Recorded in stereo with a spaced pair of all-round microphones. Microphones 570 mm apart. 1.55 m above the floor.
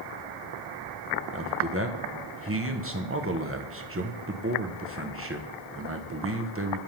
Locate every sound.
1.3 s a man speaking: 20° right (ahead or behind), 0.9 m